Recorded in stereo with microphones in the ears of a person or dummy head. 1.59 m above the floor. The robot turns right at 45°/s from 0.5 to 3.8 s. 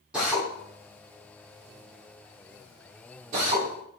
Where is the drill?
5° right (ahead or behind), 2.0 m; by 3.7 s 25° right (ahead or behind), 2.0 m.